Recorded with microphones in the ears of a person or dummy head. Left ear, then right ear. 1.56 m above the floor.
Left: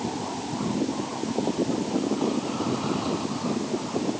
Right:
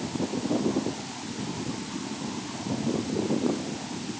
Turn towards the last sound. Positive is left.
No sound to turn to.